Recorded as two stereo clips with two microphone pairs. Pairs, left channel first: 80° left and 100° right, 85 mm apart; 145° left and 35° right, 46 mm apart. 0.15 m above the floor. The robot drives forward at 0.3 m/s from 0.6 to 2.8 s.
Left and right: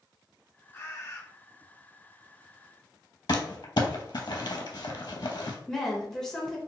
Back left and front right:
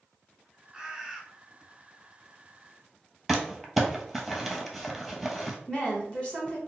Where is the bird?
35° left, 0.8 m; by 1.2 s 45° left, 0.7 m.